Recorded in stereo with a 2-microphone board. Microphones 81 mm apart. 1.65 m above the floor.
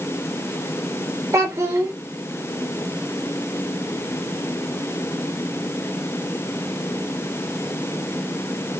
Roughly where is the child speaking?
Right.